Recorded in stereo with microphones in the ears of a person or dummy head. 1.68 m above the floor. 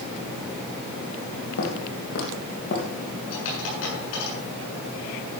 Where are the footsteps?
65° left (ahead or behind), 4 m; by 2.9 s 60° left (ahead or behind), 3.5 m.